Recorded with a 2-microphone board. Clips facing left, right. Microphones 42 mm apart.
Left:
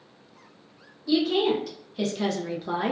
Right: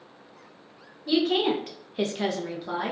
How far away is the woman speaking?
About 1.0 m.